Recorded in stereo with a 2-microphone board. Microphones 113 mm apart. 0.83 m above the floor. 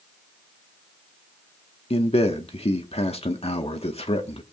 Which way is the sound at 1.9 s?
65° left (ahead or behind).